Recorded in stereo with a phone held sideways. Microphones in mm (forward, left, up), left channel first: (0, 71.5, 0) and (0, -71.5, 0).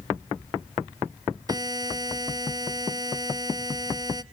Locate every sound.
1.5 s a buzzer: 25° right (ahead or behind), 0.5 m